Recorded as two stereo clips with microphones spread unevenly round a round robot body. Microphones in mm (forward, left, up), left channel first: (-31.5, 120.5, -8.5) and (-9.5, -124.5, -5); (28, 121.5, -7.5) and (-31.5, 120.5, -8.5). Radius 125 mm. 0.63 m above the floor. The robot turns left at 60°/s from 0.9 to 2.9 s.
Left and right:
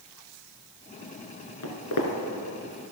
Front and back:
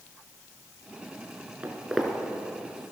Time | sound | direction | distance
1.6 | footsteps | 115° left | 3 m